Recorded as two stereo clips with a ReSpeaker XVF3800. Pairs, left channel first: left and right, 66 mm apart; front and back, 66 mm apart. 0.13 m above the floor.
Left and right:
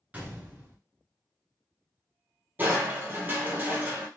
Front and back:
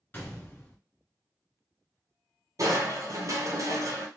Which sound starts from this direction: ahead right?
A gunshot, at 0.1 s.